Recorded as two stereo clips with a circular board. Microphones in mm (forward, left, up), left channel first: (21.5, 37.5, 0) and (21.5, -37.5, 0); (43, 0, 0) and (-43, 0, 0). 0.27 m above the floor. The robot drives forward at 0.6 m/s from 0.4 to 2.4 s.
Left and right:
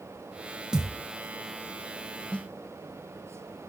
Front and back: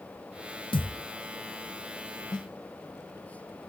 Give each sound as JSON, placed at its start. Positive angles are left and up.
{"t": 0.7, "sound": "a thud", "azimuth_deg": -10, "distance_m": 0.9}
{"t": 2.3, "sound": "a snare drum", "azimuth_deg": 20, "distance_m": 1.0}